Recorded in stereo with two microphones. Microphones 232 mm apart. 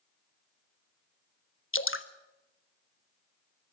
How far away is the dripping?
About 1.1 m.